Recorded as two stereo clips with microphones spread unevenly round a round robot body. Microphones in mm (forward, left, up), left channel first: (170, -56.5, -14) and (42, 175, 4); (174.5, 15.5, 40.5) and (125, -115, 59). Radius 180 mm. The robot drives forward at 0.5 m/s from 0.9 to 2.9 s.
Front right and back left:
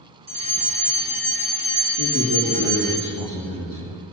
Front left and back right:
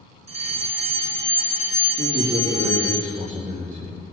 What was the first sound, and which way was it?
A fire alarm, straight behind.